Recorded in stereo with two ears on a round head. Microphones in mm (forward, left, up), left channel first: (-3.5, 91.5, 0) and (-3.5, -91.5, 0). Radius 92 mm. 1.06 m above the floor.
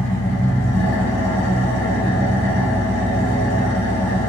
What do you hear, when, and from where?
0.0 s an engine running: 60° left (ahead or behind), 1.1 m